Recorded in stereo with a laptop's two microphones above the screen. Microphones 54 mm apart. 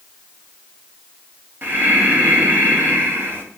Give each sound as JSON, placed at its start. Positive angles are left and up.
{"t": 1.6, "sound": "breathing", "side_deg": -40, "distance_m": 0.8}